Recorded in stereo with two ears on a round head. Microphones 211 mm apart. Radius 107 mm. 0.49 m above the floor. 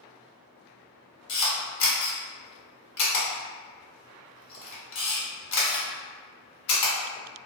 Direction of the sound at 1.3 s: 60° left (ahead or behind).